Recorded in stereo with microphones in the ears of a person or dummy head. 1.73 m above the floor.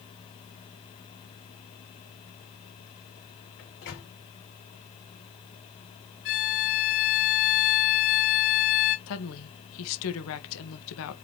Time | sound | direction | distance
3.6 | a microwave | 55° left (ahead or behind) | 3 m
6.2 | a violin | 50° left (ahead or behind) | 1.2 m
9.1 | a woman speaking | 75° left (ahead or behind) | 1.2 m